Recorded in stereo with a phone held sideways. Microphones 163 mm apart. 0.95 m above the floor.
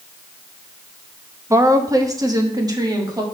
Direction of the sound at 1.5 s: 20° right (ahead or behind).